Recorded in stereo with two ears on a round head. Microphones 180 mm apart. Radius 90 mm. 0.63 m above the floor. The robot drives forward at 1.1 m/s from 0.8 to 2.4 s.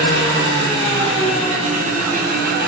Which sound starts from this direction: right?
An engine running, at 0.0 s.